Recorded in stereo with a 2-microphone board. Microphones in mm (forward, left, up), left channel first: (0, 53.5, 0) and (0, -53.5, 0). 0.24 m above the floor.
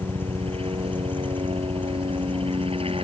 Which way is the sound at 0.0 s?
60° right (ahead or behind).